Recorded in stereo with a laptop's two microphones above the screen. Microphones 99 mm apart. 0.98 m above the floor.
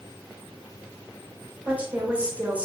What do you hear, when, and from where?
1.6 s a woman speaking: 15° right (ahead or behind), 1.0 m